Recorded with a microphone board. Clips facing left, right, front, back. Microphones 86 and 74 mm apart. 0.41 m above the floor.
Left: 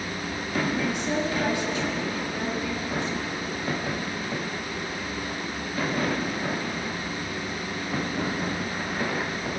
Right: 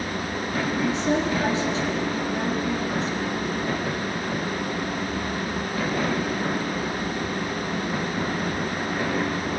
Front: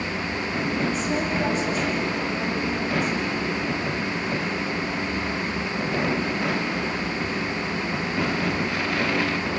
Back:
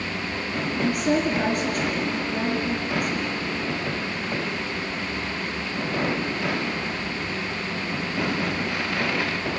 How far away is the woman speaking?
About 6.5 m.